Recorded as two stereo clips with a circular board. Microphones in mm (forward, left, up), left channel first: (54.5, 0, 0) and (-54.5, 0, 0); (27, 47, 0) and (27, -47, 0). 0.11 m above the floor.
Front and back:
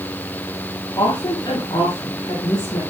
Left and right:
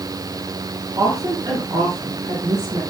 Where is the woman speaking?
50° right, 3.5 m.